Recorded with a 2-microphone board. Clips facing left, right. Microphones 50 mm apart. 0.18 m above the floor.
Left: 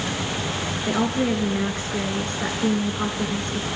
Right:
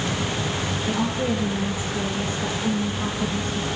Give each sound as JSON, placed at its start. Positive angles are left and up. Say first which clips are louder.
{"t": 0.9, "sound": "a woman speaking", "louder": "left 3 dB", "side_deg": 55, "distance_m": 3.0}